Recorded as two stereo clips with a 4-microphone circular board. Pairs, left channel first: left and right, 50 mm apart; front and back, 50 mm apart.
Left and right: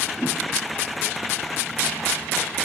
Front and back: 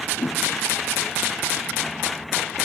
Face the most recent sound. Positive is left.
turn(degrees=-10)